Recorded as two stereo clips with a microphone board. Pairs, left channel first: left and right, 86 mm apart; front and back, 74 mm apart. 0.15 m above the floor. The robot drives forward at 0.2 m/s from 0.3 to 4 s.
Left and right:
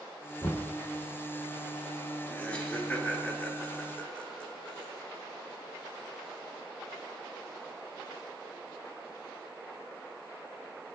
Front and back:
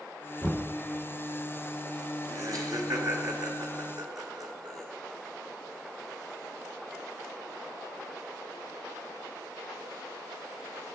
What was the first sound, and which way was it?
Knocking, 115° left.